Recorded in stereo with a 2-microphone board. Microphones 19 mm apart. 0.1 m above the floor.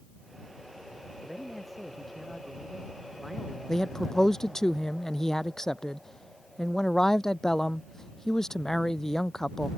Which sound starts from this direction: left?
A man speaking, at 3.7 s.